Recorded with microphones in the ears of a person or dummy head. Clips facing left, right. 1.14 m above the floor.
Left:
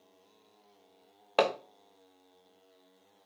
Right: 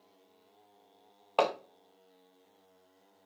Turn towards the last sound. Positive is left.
turn(degrees=20)  # may be behind; listen again after turning